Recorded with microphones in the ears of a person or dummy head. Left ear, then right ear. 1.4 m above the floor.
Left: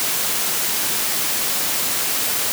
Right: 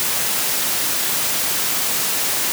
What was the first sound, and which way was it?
Only background noise.